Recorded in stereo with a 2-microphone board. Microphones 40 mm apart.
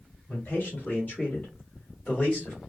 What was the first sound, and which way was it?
A man speaking, 45° left (ahead or behind).